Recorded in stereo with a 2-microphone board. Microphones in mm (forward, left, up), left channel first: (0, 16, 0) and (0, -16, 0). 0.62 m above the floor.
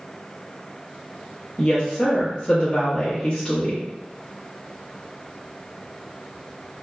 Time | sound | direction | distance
1.6 | a woman speaking | 35° left (ahead or behind) | 0.6 m